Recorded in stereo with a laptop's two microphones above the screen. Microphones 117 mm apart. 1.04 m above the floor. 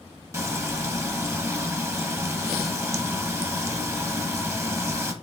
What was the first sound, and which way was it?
Frying, 25° right (ahead or behind).